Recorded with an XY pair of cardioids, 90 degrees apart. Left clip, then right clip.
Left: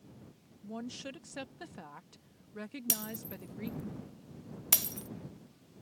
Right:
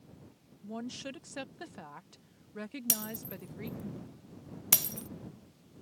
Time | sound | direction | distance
0.6 | a woman speaking | 15° right | ?
2.9 | breaking glass | 15° right | ?